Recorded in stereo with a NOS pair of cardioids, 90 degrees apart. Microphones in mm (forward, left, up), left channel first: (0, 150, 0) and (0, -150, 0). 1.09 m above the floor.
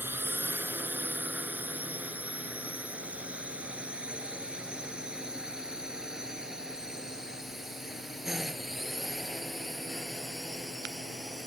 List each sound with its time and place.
0.0 s a drone: 5° right; by 11.5 s straight ahead